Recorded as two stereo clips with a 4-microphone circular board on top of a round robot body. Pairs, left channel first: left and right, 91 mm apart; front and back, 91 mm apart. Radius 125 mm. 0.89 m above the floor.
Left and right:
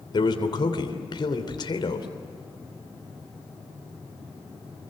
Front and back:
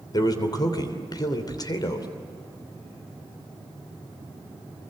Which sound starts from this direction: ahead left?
A man speaking, at 0.1 s.